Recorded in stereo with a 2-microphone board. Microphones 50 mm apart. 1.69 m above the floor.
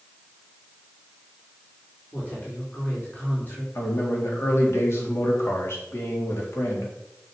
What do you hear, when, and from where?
2.1 s a woman speaking: 35° left (ahead or behind), 4.5 m
3.8 s a man speaking: 60° left (ahead or behind), 4 m